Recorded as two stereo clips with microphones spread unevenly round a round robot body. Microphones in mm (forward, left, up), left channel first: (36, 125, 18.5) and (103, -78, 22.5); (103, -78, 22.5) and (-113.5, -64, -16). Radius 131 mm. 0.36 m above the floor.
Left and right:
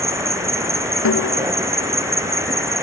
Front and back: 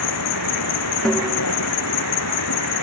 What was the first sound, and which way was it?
An insect, 5° left.